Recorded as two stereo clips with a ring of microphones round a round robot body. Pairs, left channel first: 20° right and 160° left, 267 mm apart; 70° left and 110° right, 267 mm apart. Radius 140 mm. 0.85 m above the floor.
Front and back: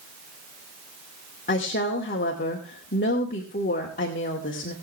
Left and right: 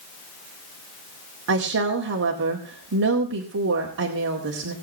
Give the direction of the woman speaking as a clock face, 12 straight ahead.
3 o'clock.